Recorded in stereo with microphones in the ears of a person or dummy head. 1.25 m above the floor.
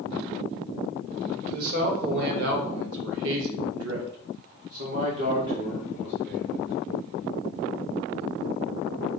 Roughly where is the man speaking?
Right.